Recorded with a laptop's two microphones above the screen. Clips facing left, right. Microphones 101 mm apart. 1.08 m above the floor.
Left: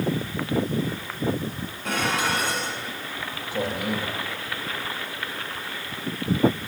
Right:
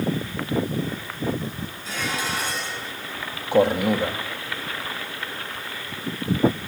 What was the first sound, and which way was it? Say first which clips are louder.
Dishes clattering: left 4 dB; 65° left (ahead or behind).